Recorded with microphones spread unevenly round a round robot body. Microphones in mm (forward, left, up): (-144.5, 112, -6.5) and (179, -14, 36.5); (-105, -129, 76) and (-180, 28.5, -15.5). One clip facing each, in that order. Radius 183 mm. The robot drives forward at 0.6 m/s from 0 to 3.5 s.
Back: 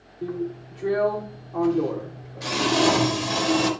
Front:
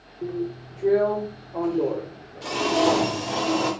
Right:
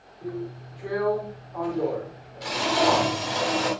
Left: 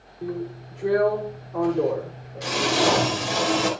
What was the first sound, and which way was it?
A drill, 100° left.